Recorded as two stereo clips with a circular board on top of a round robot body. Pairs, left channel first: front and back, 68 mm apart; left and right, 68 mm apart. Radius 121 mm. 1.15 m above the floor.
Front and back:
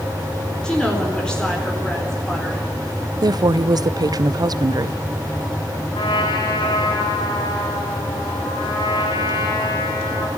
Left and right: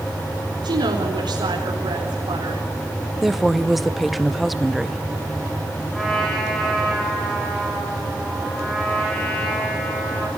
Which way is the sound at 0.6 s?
80° right.